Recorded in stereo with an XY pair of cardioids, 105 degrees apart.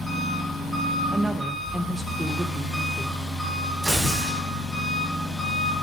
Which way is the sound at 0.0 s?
15° left.